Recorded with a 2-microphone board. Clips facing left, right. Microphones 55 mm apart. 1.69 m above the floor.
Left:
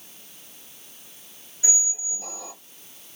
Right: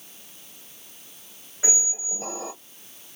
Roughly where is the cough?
I don't hear a cough.